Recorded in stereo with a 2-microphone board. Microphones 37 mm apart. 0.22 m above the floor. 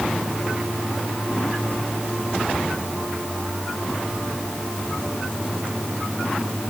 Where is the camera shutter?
No camera shutter in this recording.